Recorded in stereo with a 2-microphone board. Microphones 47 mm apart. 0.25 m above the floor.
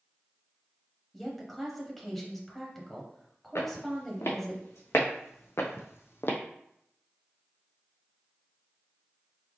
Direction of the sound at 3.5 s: 75° left (ahead or behind).